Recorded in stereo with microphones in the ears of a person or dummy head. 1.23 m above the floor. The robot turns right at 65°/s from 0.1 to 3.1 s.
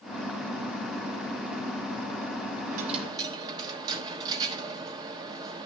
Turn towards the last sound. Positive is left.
turn(degrees=-20)  # may be behind; listen again after turning